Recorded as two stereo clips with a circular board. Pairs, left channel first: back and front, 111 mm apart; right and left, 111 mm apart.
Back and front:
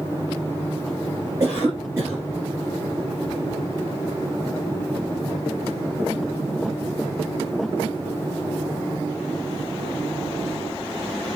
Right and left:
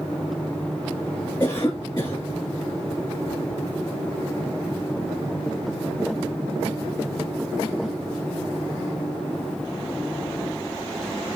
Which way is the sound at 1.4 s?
55° right.